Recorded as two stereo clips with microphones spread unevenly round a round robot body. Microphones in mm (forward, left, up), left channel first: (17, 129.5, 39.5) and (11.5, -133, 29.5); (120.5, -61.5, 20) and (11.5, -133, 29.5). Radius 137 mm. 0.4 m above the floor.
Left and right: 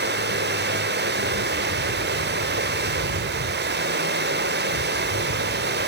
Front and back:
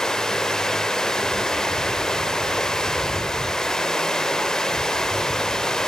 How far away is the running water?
About 1.2 m.